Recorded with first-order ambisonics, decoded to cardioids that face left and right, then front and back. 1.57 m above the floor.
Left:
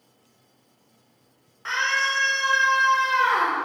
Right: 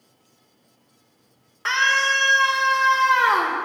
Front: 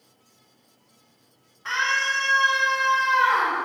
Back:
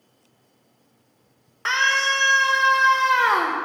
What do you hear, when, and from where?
1.6 s a scream: 150° right, 1.1 m